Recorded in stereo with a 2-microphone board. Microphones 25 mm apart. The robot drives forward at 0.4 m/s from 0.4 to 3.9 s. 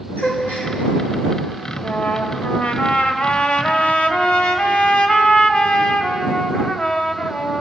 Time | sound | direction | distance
0.2 | a gasp | 85° left | 6 m
1.8 | a trumpet | 75° left (ahead or behind) | 1.7 m